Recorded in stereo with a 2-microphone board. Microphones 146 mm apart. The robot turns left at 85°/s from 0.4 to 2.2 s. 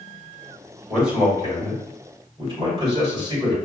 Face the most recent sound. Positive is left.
turn(degrees=-40)  # may be behind; listen again after turning